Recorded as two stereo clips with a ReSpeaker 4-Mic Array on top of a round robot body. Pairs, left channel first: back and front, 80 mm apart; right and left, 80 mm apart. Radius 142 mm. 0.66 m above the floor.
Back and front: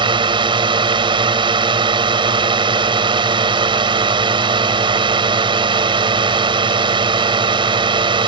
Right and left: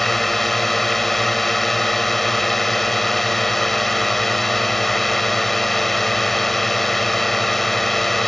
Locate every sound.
0.0 s a drone: 5° right